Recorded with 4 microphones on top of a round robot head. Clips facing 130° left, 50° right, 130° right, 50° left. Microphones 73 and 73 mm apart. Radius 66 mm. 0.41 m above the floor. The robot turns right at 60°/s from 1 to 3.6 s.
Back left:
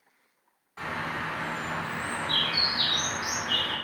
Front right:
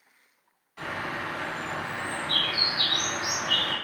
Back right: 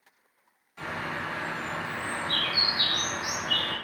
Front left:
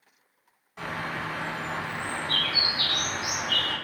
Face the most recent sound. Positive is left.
turn(degrees=-130)